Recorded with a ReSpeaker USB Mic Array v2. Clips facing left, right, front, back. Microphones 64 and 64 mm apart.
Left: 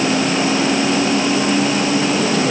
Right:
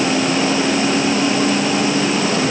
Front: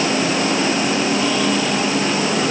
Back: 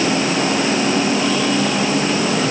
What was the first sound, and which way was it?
Only background noise.